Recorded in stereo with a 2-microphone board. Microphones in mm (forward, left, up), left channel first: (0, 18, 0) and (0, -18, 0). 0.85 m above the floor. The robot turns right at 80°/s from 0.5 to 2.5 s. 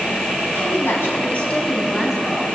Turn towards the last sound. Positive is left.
turn(degrees=-135)